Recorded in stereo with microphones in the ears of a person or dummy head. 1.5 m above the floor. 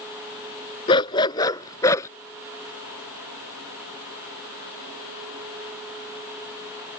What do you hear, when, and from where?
0.9 s a dog barking: 30° left (ahead or behind); by 2.1 s 20° left (ahead or behind)